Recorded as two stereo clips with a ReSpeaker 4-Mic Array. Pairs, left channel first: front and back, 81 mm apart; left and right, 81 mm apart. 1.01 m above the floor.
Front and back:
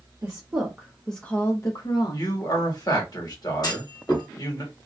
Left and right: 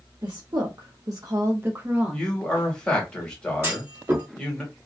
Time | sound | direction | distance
0.2 | a woman speaking | 125° right | 0.8 m
2.1 | a man speaking | 15° left | 1.3 m
3.6 | a clunk | 30° right | 1.3 m